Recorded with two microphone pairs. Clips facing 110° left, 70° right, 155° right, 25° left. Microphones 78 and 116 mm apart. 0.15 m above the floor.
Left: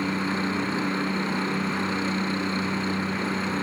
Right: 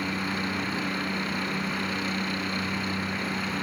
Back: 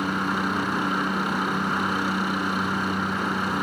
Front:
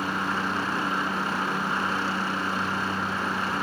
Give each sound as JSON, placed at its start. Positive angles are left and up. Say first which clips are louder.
{"t": 0.0, "sound": "a helicopter", "louder": "left 4 dB, back 3 dB", "azimuth_deg": 140}